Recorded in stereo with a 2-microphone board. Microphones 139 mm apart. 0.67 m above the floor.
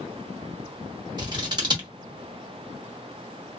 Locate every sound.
1.2 s scissors: 30° right (ahead or behind), 1.0 m